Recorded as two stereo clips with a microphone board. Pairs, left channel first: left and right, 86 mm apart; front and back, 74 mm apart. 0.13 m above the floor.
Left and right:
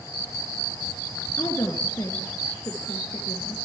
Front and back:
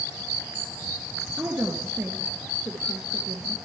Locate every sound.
1.4 s a woman speaking: 130° left, 2 m